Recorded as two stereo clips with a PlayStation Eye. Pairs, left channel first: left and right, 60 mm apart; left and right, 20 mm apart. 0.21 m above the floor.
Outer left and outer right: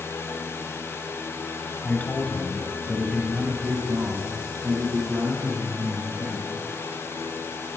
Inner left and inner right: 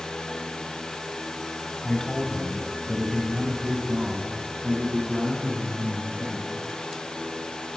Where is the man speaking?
30° left (ahead or behind), 1.1 m; by 6.5 s 65° right (ahead or behind), 2.5 m.